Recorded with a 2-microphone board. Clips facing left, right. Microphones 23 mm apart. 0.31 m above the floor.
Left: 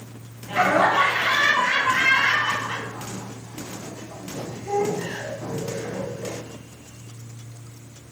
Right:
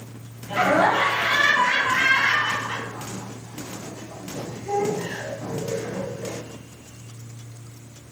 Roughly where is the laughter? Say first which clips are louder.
Even; centre.